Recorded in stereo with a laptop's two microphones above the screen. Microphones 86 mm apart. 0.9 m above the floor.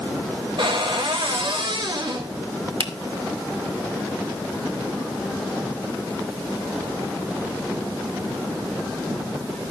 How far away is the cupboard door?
About 4.5 m.